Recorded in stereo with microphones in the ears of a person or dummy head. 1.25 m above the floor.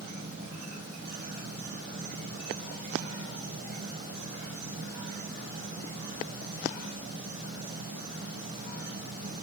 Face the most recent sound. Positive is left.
turn(degrees=-50)  # may be behind; listen again after turning